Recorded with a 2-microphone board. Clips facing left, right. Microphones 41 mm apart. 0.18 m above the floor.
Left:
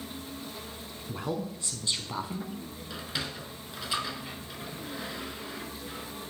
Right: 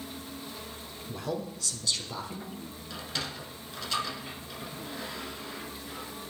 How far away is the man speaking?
About 1.6 m.